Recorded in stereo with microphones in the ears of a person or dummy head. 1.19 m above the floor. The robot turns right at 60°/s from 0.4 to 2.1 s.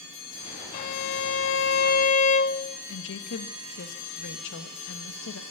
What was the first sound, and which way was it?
A violin, 50° left.